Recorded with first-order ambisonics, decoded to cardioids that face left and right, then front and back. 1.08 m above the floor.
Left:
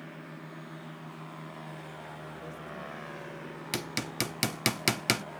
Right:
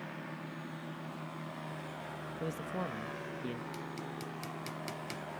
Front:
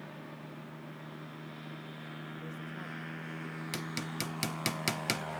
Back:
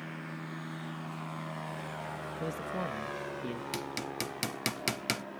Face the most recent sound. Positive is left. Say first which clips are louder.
# left 9 dB, front 1 dB
turn(degrees=95)